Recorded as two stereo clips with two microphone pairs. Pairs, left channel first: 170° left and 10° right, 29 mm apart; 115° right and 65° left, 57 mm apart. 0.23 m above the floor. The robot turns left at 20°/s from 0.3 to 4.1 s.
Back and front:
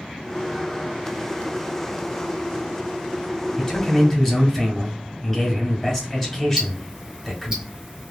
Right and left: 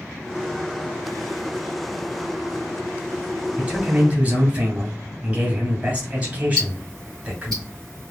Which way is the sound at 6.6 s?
55° right.